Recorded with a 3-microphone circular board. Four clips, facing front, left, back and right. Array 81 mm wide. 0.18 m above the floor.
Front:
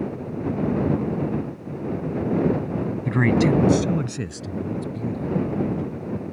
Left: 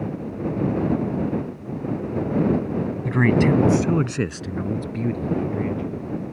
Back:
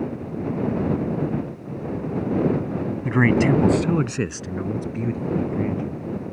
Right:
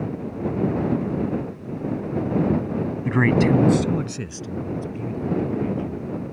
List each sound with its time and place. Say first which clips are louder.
3.0 s a man speaking: even, back 1 dB; 130° right; by 6.0 s 120° left